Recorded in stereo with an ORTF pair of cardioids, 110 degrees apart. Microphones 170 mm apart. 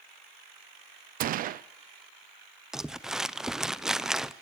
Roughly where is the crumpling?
Ahead.